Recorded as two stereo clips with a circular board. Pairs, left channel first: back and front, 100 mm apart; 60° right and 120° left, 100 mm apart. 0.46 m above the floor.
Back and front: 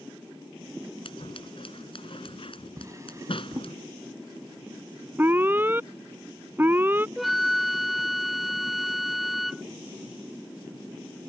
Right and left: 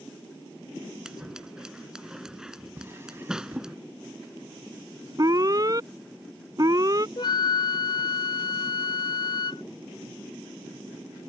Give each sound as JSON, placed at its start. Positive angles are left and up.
{"t": 1.1, "sound": "scissors", "azimuth_deg": -155}
{"t": 2.8, "sound": "a drawer", "azimuth_deg": 55}
{"t": 5.2, "sound": "an alarm", "azimuth_deg": 70}
{"t": 7.2, "sound": "a flute", "azimuth_deg": -90}